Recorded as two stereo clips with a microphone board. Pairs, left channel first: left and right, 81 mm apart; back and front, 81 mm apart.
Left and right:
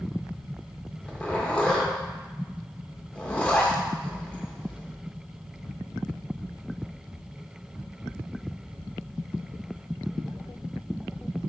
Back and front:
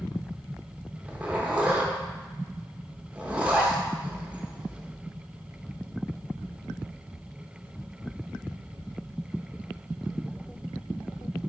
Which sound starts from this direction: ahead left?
A zipper, at 1.0 s.